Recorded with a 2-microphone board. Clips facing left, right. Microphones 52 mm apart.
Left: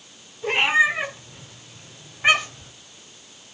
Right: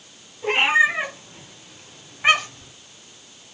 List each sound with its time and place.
0.4 s a cat meowing: 20° right (ahead or behind), 6 m; by 2.7 s centre (ahead or behind), 4 m